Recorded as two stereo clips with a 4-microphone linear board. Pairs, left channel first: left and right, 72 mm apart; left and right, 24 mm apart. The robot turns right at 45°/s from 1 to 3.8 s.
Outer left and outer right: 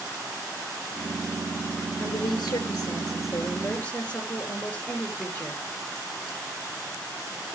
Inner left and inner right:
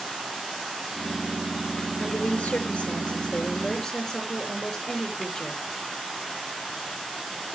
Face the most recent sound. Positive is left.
turn(degrees=160)